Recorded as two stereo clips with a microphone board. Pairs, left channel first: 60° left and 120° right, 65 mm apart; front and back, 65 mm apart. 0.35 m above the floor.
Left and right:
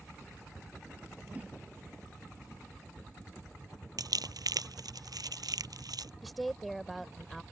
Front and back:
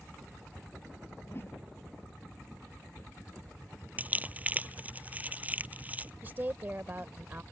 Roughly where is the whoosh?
Ahead right.